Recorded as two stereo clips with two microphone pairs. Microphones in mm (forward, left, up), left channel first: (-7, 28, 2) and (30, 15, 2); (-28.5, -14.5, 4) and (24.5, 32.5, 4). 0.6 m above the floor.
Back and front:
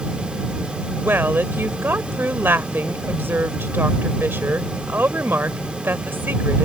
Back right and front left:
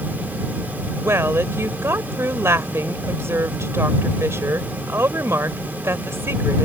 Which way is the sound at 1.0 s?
5° right.